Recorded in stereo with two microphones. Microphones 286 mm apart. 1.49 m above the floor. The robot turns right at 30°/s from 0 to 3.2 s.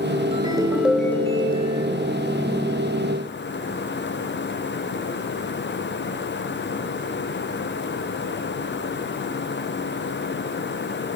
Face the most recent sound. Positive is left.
turn(degrees=65)